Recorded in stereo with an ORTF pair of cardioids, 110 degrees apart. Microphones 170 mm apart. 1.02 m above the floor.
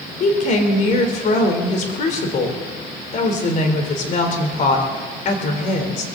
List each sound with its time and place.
0.2 s a woman speaking: 50° left, 3 m